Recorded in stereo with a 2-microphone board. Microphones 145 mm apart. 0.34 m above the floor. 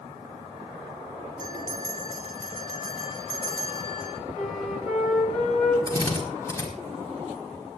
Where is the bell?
65° left (ahead or behind), 8.5 m.